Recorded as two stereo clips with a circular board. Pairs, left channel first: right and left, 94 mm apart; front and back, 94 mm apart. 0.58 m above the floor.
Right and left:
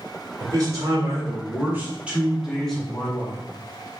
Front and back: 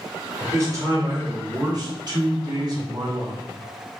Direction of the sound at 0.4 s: 125° left.